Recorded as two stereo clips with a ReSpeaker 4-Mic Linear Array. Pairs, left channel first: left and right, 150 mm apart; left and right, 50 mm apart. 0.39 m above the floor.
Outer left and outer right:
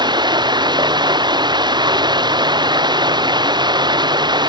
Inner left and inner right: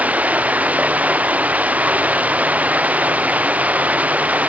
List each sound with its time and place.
0.0 s running water: 30° right (ahead or behind)